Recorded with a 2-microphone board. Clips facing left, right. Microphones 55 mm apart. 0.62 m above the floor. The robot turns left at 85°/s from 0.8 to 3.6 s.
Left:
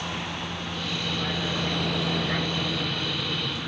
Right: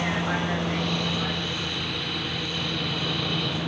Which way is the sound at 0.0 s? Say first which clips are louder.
Right 6 dB; 80° right.